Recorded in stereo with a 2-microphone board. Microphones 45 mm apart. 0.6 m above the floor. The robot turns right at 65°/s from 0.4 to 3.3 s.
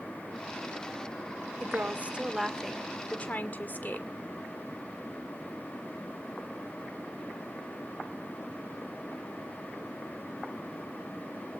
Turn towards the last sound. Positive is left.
turn(degrees=50)